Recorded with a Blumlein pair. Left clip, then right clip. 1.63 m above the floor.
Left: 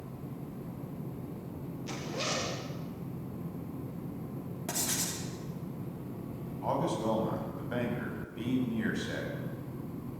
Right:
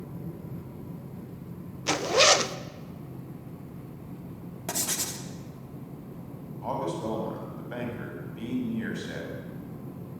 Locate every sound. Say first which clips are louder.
1.9 s a zipper: right 15 dB; 55° right, 1.0 m
4.7 s writing: right 3 dB; 15° right, 3 m
6.6 s a man speaking: even; straight ahead, 8.5 m